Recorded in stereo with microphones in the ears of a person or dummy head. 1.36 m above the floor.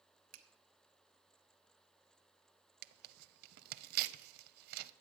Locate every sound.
0.3 s a finger snap: 65° right (ahead or behind), 1.2 m
2.8 s tearing paper: 60° right (ahead or behind), 0.5 m